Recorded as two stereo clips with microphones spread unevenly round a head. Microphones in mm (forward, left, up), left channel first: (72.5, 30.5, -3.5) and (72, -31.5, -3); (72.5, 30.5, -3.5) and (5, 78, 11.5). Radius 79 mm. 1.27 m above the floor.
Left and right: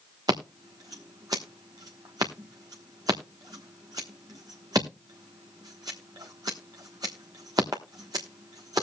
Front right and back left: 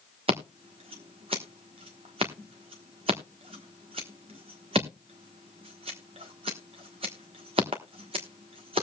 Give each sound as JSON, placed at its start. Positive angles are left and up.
{"t": 0.3, "sound": "scissors", "azimuth_deg": -160, "distance_m": 1.1}